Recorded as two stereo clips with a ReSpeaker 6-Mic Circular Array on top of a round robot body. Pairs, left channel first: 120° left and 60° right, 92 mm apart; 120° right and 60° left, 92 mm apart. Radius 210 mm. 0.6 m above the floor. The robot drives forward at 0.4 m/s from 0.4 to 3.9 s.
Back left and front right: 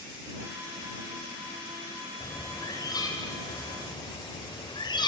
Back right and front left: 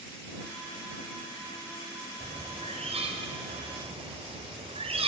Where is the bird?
65° left, 3 m; by 5.1 s 75° left, 3 m.